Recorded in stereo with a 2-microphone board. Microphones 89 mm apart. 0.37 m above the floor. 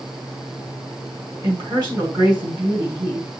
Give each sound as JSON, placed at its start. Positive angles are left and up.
{"t": 1.4, "sound": "a woman speaking", "side_deg": -50, "distance_m": 4.0}